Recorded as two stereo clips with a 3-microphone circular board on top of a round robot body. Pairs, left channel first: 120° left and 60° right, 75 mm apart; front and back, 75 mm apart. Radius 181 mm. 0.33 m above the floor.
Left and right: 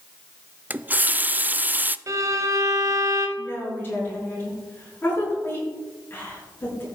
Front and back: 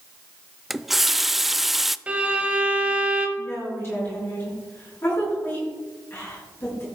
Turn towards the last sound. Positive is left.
turn(degrees=60)